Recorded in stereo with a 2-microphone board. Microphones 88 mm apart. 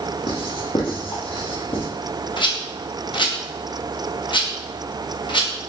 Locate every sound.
0.3 s writing: 75° left (ahead or behind), 1.1 m
2.4 s a rattle: 65° left (ahead or behind), 0.6 m